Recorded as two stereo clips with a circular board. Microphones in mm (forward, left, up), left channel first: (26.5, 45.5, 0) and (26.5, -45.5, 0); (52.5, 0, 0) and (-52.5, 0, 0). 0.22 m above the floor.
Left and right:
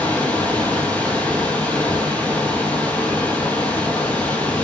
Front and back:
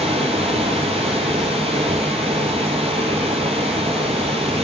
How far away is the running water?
About 0.9 m.